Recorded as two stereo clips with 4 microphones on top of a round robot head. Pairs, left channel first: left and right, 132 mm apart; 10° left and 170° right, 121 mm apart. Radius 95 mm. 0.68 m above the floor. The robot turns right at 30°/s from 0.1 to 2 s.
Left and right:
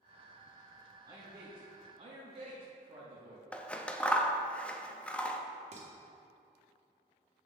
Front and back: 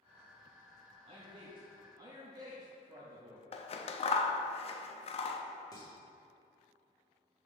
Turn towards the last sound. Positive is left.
turn(degrees=-55)